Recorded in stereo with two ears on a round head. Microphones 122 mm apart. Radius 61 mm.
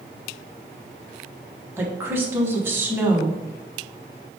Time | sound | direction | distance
1.8 | a woman speaking | 15° right (ahead or behind) | 0.9 m